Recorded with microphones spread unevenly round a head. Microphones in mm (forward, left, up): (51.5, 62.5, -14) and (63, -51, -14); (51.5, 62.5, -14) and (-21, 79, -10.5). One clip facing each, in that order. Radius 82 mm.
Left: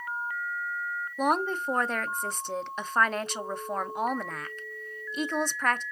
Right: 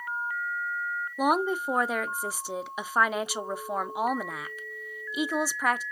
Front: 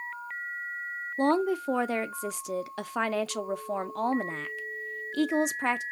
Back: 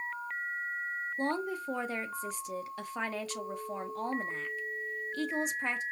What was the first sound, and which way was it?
A woman speaking, straight ahead.